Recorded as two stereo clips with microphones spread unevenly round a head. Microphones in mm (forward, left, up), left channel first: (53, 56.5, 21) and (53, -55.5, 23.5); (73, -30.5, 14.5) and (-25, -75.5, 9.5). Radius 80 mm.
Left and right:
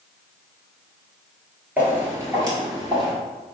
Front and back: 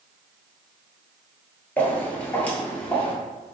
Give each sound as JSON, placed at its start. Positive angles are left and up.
{"t": 1.8, "sound": "footsteps", "azimuth_deg": -30, "distance_m": 1.3}